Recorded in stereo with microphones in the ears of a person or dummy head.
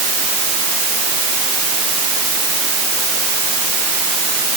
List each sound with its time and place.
Only background noise.